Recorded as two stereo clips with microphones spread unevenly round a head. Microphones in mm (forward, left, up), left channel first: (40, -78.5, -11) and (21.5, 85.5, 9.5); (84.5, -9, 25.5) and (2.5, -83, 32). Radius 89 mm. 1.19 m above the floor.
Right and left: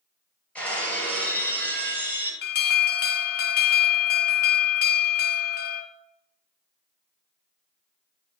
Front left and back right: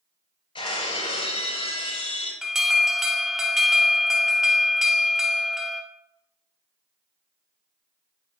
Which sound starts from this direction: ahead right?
An alarm, at 2.4 s.